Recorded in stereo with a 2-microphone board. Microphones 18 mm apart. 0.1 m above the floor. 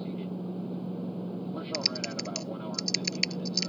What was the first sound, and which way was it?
An aircraft, 5° left (ahead or behind).